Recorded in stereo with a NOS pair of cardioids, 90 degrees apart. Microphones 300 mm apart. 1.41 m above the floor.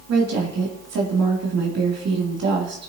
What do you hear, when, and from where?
0.1 s a woman speaking: 60° right, 2.5 m